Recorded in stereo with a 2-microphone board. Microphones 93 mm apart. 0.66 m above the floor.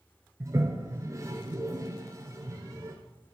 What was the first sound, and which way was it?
A toilet flushing, 35° right (ahead or behind).